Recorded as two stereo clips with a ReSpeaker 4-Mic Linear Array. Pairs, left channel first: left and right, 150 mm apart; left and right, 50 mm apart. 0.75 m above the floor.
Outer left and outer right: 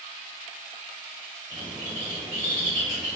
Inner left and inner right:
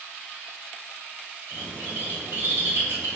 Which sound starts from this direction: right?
A bird, at 1.5 s.